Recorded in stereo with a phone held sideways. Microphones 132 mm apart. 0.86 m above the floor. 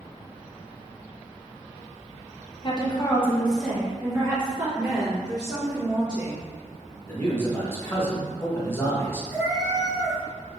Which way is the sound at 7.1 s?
15° left (ahead or behind).